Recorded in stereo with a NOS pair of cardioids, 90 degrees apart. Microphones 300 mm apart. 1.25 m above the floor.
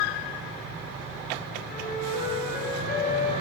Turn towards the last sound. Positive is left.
turn(degrees=30)